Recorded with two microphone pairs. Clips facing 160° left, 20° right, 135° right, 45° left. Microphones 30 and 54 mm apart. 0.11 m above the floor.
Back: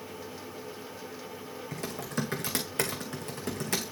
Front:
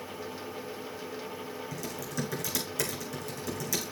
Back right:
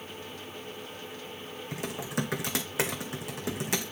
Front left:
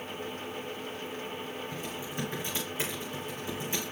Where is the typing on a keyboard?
155° right, 1.8 m.